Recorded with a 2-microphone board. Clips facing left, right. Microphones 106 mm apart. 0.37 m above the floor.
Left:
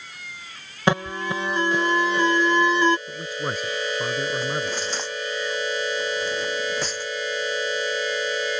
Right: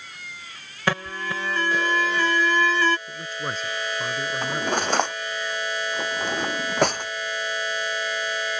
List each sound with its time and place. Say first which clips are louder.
0.9 s an alarm: left 4 dB; 20° left (ahead or behind)
3.1 s a man speaking: left 2 dB; 10° left (ahead or behind)
4.4 s cutlery clinking: right 2 dB; 60° right (ahead or behind)